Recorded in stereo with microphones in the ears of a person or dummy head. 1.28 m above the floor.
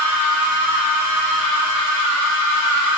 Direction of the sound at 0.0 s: 70° right (ahead or behind).